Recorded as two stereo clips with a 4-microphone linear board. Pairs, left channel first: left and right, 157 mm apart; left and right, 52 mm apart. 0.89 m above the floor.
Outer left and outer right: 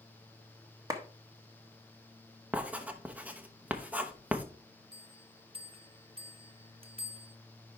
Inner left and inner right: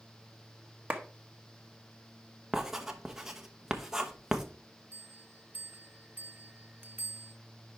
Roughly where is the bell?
Right.